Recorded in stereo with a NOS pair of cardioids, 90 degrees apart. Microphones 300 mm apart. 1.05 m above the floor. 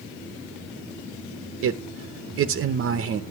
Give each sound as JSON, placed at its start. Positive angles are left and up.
{"t": 1.6, "sound": "a man speaking", "azimuth_deg": -45, "distance_m": 0.8}